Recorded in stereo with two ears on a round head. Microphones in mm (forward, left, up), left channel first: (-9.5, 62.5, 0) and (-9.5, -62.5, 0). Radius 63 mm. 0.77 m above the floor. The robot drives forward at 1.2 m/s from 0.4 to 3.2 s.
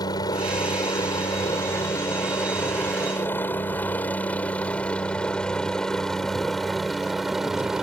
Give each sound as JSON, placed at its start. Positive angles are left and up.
{"t": 0.0, "sound": "a helicopter", "side_deg": 30}